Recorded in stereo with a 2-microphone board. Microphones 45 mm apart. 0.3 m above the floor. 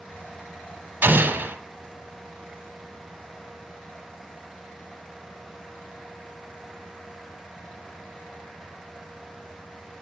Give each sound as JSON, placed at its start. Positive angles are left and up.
{"t": 1.0, "sound": "an explosion", "side_deg": -50, "distance_m": 0.9}